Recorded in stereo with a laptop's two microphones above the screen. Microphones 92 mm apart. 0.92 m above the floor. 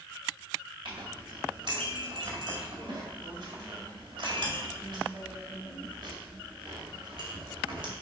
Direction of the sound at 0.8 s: 70° right (ahead or behind).